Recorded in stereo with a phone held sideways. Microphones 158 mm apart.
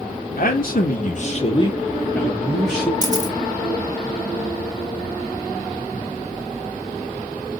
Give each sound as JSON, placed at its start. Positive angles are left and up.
{"t": 0.4, "sound": "a man speaking", "side_deg": 65, "distance_m": 0.8}
{"t": 3.0, "sound": "a camera shutter", "side_deg": 25, "distance_m": 0.6}